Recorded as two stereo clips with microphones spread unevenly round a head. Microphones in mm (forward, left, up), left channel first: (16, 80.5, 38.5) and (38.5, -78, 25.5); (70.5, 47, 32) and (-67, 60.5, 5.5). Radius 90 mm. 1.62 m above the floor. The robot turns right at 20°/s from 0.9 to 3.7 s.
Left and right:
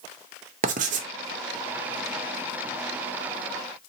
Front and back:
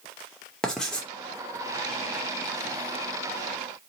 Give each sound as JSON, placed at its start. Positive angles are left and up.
{"t": 0.6, "sound": "writing", "azimuth_deg": -75, "distance_m": 0.5}